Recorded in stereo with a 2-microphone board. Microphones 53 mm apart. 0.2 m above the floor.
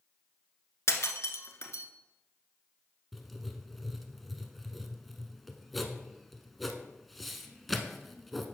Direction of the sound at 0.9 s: 60° left (ahead or behind).